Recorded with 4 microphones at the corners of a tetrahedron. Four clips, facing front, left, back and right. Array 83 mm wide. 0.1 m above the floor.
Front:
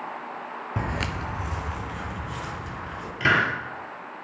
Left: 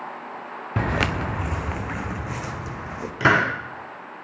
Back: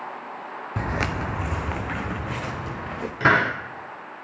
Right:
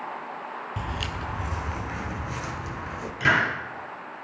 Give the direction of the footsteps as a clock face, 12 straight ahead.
9 o'clock.